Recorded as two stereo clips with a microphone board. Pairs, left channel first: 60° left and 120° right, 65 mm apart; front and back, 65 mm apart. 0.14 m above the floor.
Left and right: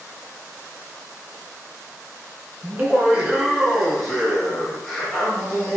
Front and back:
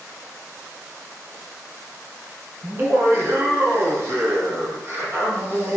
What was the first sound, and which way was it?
Laughter, 160° right.